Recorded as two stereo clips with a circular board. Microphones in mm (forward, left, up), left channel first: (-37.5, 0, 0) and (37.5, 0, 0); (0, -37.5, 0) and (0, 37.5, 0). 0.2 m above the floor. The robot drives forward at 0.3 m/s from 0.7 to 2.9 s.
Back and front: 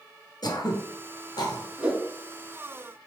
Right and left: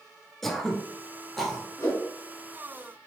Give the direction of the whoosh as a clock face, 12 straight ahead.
2 o'clock.